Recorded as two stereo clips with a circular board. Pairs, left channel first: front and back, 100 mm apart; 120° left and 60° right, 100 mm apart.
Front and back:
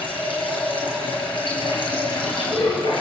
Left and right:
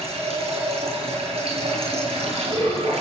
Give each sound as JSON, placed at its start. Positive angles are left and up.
{"t": 0.0, "sound": "running water", "azimuth_deg": -40, "distance_m": 7.0}